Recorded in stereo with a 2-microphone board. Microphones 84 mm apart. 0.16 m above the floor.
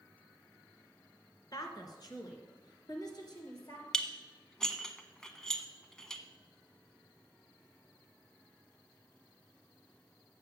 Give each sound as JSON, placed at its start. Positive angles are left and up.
{"t": 1.5, "sound": "a woman speaking", "side_deg": 50, "distance_m": 1.8}
{"t": 3.9, "sound": "dishes clattering", "side_deg": 5, "distance_m": 0.7}